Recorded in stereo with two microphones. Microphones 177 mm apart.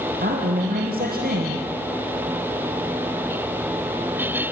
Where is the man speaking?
60° right (ahead or behind), 3 m.